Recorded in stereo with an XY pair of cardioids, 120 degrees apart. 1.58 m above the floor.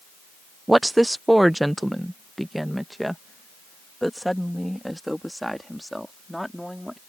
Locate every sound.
0.7 s a woman speaking: 10° right; by 7.0 s straight ahead